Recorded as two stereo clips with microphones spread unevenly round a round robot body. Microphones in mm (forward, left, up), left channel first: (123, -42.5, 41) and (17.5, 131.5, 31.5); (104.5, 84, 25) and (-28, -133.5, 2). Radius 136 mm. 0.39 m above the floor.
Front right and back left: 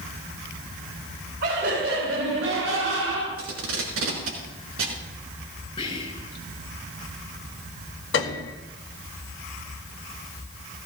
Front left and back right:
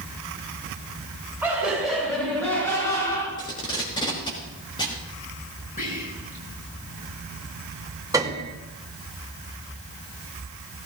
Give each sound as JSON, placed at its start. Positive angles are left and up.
{"t": 1.4, "sound": "laughter", "azimuth_deg": 155, "distance_m": 3.5}
{"t": 3.4, "sound": "tape being pulled", "azimuth_deg": 130, "distance_m": 4.0}
{"t": 5.8, "sound": "whispering", "azimuth_deg": 5, "distance_m": 7.0}
{"t": 8.1, "sound": "a piano", "azimuth_deg": -45, "distance_m": 1.8}